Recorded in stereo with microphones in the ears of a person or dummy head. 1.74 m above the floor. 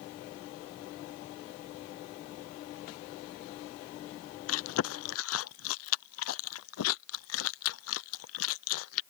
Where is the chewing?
80° left.